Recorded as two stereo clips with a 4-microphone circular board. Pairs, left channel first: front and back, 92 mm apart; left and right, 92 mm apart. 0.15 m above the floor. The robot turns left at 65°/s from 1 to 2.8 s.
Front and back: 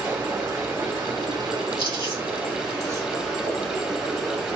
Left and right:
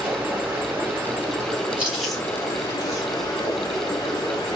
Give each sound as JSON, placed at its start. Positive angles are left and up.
{"t": 0.0, "sound": "running water", "azimuth_deg": -150, "distance_m": 1.7}
{"t": 1.8, "sound": "chewing", "azimuth_deg": -160, "distance_m": 2.5}